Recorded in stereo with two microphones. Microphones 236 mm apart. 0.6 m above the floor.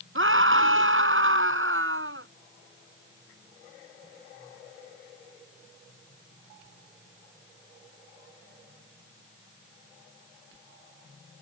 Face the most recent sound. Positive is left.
turn(degrees=-60)  # may be behind; listen again after turning